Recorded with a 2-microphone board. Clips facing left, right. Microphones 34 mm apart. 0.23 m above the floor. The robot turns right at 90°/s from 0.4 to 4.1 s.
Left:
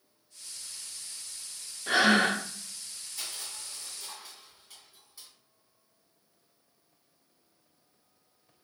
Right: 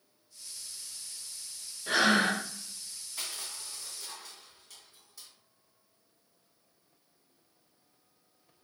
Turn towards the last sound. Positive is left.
turn(degrees=15)  # may be behind; listen again after turning